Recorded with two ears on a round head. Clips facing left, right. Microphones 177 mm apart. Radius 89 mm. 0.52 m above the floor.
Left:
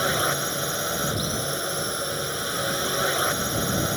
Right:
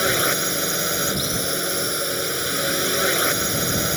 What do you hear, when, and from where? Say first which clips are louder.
0.0 s a drone: right 3 dB; 30° right (ahead or behind)